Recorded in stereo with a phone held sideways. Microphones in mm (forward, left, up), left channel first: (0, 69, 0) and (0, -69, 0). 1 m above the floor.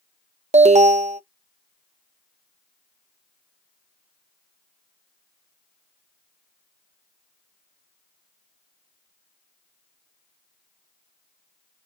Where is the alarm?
60° right (ahead or behind), 0.5 m.